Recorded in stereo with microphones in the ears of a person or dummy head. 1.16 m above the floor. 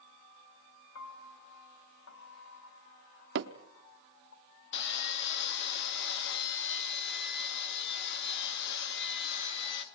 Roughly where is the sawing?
Left.